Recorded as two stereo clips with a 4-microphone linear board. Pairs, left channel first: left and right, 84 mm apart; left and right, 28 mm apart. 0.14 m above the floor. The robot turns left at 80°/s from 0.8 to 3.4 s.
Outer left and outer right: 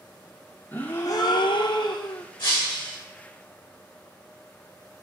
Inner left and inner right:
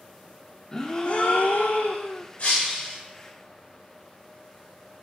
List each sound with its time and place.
0.7 s a gasp: 160° left, 1.5 m; by 2.2 s 45° left, 1.5 m
2.4 s breaking glass: 65° left, 6.5 m; by 3.0 s 20° left, 6.5 m